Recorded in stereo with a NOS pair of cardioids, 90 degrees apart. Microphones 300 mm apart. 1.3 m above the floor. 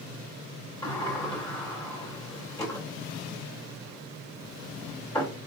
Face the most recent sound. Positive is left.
turn(degrees=10)